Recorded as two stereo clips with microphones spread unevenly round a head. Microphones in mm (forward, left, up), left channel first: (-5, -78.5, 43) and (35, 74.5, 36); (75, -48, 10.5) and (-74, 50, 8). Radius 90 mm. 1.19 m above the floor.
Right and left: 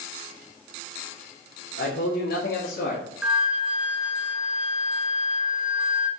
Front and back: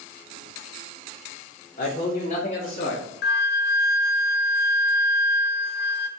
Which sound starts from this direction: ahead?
A flute, at 3.2 s.